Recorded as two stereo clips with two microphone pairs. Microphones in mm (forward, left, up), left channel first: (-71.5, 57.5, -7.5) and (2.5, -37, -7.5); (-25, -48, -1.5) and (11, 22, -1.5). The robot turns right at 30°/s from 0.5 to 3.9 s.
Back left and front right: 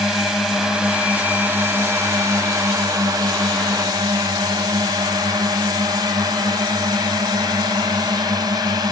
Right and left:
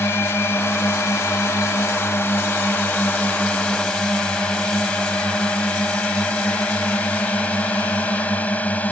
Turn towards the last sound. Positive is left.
turn(degrees=-65)